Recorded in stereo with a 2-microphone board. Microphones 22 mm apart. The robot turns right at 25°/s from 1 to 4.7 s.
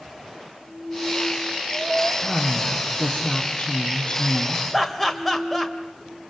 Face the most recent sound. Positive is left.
turn(degrees=10)  # may be behind; listen again after turning